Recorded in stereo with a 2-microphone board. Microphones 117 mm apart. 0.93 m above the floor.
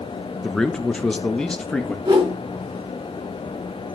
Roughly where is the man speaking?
Centre.